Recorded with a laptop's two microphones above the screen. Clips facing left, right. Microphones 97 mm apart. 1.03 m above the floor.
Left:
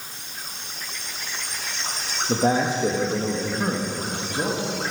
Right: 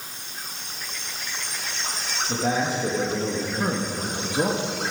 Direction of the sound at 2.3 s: 35° left (ahead or behind).